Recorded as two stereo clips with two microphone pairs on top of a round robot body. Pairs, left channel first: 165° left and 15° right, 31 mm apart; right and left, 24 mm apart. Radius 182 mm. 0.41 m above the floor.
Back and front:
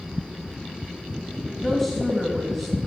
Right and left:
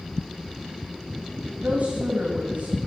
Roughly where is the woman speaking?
Left.